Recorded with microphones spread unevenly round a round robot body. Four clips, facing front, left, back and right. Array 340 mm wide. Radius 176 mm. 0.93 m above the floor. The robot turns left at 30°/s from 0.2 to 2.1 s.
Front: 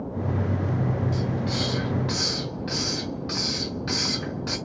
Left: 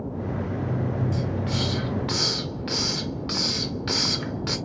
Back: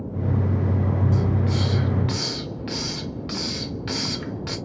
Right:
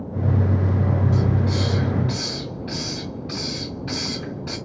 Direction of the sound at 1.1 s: 135° left.